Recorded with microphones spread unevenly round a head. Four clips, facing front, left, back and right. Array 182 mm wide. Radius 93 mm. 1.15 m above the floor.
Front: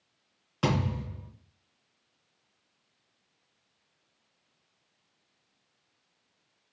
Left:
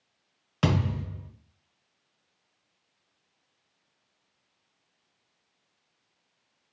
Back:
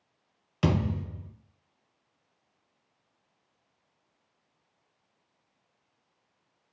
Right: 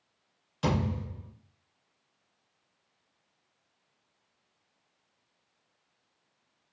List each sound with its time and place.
0.6 s a thud: 105° left, 1.4 m